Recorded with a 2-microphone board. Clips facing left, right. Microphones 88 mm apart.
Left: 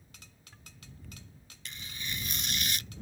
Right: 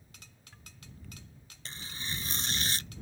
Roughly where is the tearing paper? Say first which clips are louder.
Right 1 dB; right.